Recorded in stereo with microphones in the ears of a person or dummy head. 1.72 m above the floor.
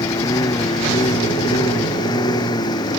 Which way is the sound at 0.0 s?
20° left (ahead or behind).